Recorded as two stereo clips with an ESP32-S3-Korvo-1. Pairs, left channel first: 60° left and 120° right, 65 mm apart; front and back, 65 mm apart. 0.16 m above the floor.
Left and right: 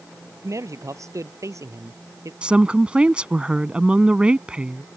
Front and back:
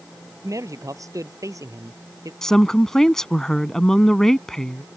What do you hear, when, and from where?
0.4 s a man speaking: 150° right
2.4 s a woman speaking: 70° right